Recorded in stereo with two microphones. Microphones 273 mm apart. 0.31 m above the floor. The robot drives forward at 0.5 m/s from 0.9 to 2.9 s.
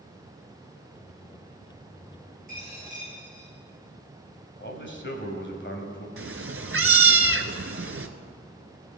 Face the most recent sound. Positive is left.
turn(degrees=-50)  # may be behind; listen again after turning